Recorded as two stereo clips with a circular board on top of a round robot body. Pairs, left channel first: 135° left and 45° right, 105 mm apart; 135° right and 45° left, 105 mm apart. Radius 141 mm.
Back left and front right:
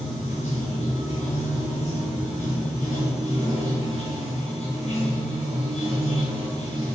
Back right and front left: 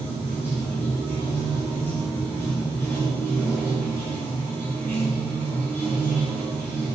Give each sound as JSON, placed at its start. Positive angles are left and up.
{"t": 0.0, "sound": "running water", "azimuth_deg": 155, "distance_m": 7.5}